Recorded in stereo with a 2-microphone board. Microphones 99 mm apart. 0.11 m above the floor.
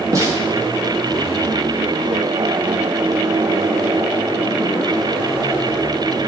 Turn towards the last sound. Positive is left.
turn(degrees=-35)  # may be behind; listen again after turning